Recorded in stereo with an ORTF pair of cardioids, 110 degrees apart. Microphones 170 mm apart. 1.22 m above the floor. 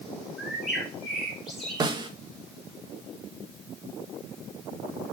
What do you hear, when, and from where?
0.4 s a bird: straight ahead, 2.5 m
1.8 s a snare drum: 25° right, 1.4 m